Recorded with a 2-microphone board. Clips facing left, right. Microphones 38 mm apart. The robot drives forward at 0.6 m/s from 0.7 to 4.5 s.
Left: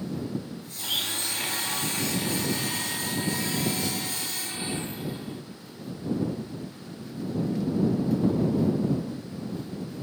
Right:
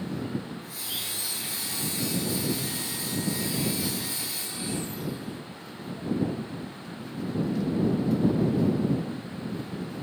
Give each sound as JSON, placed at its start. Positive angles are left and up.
{"t": 0.8, "sound": "a blender", "side_deg": 45, "distance_m": 1.6}